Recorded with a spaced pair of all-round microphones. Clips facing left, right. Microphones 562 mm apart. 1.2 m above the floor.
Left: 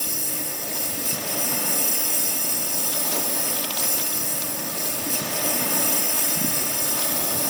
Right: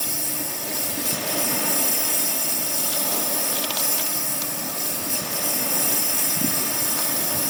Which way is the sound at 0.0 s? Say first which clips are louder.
Right 1 dB; 15° right (ahead or behind).